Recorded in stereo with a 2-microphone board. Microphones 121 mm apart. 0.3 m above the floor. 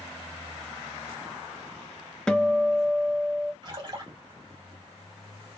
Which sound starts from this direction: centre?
A guitar, at 2.3 s.